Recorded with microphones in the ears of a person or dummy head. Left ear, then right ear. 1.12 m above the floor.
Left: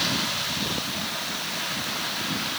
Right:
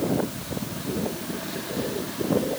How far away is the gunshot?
I don't hear a gunshot.